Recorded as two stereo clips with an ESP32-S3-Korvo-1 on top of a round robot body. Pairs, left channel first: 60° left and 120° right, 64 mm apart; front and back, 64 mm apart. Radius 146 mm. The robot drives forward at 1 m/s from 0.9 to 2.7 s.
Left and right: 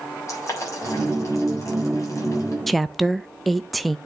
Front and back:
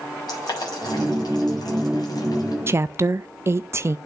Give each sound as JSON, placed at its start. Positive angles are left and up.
{"t": 0.3, "sound": "boiling", "azimuth_deg": 15, "distance_m": 6.0}
{"t": 2.7, "sound": "a woman speaking", "azimuth_deg": 145, "distance_m": 0.5}